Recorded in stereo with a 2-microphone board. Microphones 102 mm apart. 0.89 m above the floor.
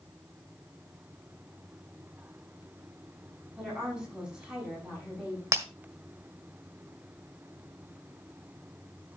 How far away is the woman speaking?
About 8 m.